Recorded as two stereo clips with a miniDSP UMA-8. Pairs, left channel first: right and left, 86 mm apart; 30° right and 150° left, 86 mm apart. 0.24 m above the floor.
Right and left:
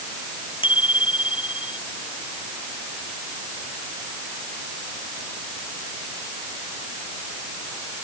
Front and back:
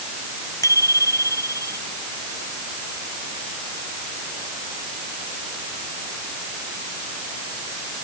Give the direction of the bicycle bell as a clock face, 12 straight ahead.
3 o'clock.